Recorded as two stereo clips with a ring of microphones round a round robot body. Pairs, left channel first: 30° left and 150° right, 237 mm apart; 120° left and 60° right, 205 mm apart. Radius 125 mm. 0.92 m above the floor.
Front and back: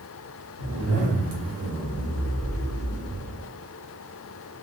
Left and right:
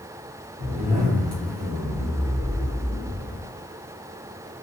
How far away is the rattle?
No rattle in this recording.